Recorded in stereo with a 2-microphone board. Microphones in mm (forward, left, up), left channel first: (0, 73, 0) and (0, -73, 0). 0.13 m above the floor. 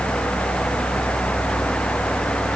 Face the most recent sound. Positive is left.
No sound to turn to.